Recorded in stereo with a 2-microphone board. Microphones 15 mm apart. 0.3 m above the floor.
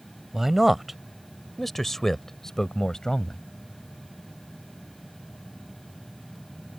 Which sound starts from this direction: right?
A man speaking, at 0.3 s.